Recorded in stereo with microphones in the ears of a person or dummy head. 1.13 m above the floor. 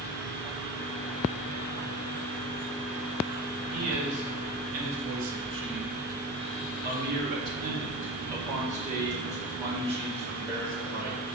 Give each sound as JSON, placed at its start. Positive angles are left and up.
{"t": 3.7, "sound": "a man speaking", "side_deg": -70, "distance_m": 1.8}